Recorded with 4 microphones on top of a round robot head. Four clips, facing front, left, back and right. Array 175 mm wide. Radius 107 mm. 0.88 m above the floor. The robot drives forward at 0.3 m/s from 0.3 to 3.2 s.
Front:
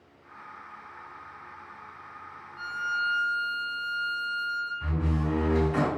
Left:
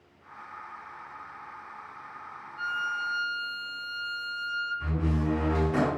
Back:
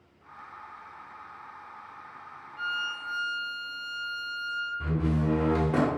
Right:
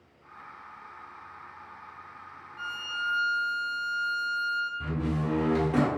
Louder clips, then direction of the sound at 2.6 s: Left 4 dB, front 3 dB; 115° right.